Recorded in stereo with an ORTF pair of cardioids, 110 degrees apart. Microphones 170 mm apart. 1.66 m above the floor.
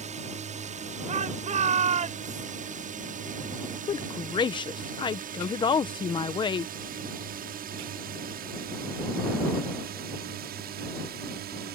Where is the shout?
45° right.